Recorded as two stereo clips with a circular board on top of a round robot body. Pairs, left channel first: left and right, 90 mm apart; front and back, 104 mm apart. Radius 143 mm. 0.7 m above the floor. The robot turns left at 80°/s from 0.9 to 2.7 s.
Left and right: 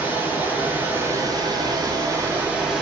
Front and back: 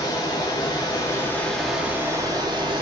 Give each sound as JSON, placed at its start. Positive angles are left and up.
{"t": 0.0, "sound": "running water", "azimuth_deg": -30, "distance_m": 0.9}